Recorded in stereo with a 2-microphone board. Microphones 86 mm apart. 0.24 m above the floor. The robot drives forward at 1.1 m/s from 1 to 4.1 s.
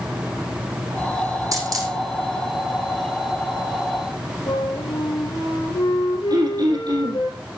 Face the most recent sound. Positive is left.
turn(degrees=-50)  # may be behind; listen again after turning